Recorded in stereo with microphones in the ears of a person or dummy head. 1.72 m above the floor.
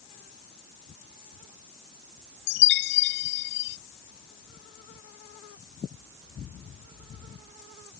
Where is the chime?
55° left (ahead or behind).